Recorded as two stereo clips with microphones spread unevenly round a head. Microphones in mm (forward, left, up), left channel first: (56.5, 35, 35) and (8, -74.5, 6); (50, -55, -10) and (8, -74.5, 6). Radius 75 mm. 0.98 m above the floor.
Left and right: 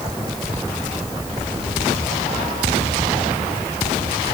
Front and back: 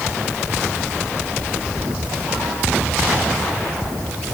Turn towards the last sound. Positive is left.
No sound to turn to.